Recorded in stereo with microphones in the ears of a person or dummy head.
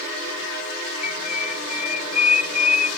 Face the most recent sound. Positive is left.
turn(degrees=35)  # may be behind; listen again after turning